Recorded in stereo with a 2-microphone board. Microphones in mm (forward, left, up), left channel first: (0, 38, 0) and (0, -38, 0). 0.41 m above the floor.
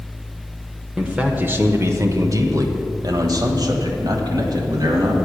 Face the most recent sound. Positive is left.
turn(degrees=-55)  # may be behind; listen again after turning